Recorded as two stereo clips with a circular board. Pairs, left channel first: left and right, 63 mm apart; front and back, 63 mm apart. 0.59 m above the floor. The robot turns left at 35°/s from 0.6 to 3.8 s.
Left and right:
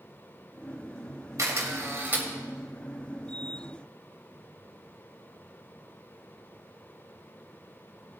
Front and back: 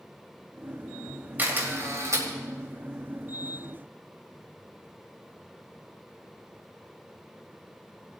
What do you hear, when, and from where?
1.4 s a camera shutter: 125° right, 2.5 m; by 2.2 s 155° right, 2.5 m